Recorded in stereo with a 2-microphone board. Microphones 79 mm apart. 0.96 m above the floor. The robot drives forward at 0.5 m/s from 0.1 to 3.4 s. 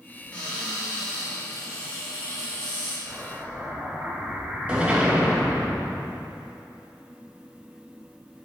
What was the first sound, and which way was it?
A cupboard door, 15° left (ahead or behind).